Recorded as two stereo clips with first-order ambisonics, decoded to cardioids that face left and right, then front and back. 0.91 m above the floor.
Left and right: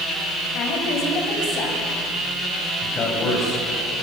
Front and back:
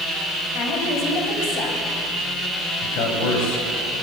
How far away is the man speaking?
About 5.5 m.